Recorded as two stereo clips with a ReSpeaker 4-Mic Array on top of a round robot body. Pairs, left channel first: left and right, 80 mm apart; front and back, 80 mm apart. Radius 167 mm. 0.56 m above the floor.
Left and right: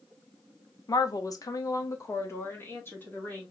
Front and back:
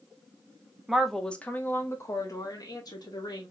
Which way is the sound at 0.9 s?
95° left.